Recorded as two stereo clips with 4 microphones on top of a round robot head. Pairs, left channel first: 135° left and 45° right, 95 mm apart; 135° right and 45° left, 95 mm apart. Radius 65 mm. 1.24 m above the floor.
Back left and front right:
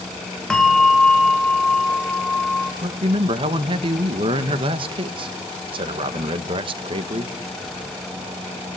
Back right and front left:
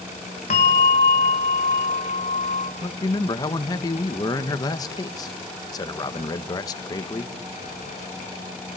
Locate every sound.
0.5 s a bell: 145° right, 1.1 m
2.8 s a man speaking: 80° right, 1.2 m